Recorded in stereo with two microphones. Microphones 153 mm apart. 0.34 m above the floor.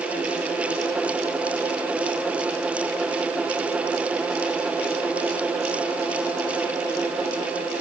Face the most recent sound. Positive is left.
No sound to turn to.